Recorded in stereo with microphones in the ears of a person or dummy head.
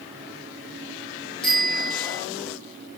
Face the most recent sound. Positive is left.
turn(degrees=5)  # may be behind; listen again after turning